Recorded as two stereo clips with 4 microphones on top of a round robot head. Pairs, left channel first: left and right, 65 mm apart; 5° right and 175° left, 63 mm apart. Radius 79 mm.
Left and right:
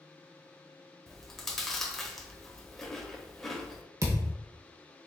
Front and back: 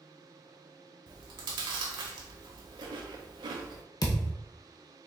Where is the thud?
40° right, 0.6 m.